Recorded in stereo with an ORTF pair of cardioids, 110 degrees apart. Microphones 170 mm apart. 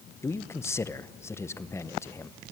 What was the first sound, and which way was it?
A man speaking, 15° left.